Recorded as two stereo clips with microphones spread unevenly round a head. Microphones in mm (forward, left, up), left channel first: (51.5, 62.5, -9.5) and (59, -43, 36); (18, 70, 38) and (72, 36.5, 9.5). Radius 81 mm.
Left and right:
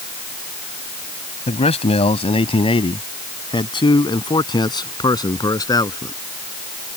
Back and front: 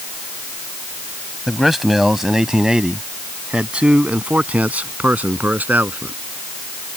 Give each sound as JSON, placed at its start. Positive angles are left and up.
{"t": 1.5, "sound": "a man speaking", "azimuth_deg": 60}